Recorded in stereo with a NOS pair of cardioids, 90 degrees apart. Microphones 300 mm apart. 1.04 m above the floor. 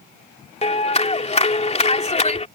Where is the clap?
20° left.